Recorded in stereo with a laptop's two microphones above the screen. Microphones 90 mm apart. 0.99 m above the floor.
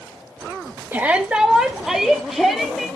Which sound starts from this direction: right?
A shout, at 0.9 s.